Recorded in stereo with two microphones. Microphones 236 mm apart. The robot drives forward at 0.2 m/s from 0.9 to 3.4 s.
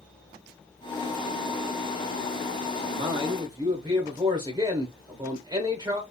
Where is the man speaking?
20° right (ahead or behind), 0.8 m.